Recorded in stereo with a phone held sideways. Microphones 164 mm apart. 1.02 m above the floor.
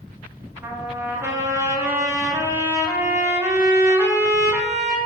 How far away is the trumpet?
About 0.8 m.